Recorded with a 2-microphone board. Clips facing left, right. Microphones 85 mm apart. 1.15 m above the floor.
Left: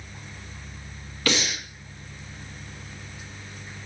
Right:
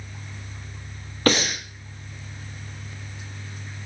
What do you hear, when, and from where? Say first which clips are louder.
1.3 s breathing: right 5 dB; 40° right (ahead or behind), 1.1 m